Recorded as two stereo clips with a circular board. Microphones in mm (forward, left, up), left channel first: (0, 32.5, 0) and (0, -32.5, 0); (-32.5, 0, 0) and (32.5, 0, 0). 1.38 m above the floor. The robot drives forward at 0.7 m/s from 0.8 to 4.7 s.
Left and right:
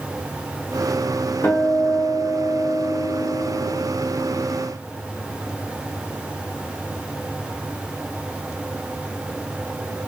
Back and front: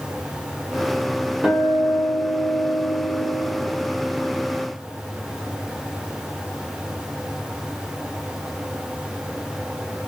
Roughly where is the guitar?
Ahead left.